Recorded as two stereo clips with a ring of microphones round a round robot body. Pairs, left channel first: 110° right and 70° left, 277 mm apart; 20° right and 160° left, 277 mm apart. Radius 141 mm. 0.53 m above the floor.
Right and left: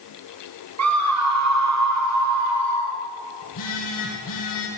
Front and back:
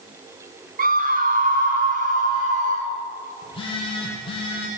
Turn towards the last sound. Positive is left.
turn(degrees=-95)